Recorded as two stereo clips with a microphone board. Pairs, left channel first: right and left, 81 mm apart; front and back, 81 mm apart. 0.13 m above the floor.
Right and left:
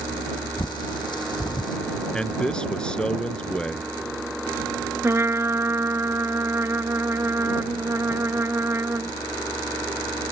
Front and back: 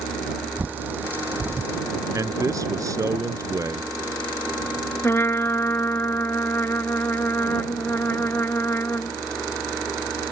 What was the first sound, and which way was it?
A bird, 115° right.